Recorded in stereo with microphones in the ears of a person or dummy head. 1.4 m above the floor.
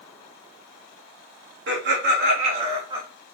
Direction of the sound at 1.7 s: 70° right (ahead or behind).